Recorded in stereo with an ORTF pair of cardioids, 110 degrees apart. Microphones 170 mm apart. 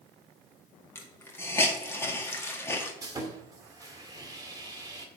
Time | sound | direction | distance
0.9 | a hiss | 15° left | 1.7 m
3.0 | sawing | 20° right | 1.8 m